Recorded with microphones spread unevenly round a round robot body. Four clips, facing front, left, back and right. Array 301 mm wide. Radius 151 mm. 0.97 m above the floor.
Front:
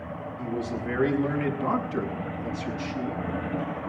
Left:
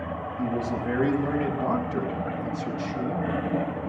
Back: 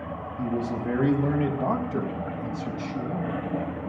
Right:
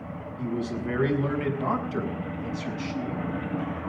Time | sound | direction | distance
0.4 | a man speaking | 160° left | 5 m